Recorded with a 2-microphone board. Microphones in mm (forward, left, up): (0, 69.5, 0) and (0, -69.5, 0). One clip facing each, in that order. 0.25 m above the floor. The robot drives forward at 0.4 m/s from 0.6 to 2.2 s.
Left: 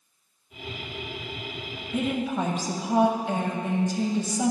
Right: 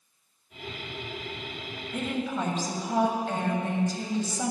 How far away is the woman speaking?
About 1.0 m.